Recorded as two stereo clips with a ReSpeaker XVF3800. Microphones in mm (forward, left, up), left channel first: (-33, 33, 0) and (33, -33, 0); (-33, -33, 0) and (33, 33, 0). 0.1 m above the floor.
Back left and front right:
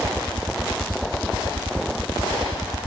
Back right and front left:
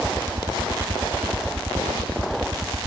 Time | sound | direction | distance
0.0 | a helicopter | 15° left | ?